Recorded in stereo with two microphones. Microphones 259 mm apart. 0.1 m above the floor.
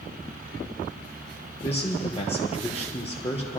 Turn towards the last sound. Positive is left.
turn(degrees=25)  # may be behind; listen again after turning